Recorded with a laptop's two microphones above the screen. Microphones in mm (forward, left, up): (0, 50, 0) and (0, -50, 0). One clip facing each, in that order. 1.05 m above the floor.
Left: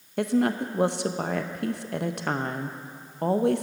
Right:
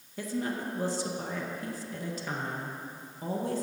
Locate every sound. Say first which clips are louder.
0.2 s a woman speaking: left 9 dB; 70° left (ahead or behind), 0.6 m